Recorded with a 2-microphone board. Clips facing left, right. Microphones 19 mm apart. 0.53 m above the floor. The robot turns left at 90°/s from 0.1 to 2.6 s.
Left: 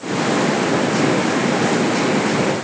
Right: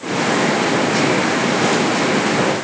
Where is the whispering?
I don't hear whispering.